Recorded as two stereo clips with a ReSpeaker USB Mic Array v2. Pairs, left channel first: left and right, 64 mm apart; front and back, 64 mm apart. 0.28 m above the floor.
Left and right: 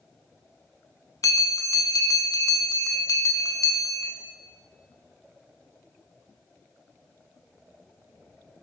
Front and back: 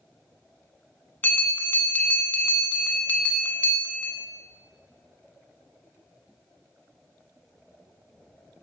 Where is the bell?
60° left, 0.8 m.